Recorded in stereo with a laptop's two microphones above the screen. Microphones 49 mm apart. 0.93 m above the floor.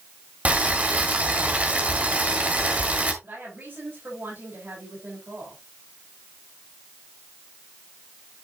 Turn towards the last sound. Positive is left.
turn(degrees=-55)  # may be behind; listen again after turning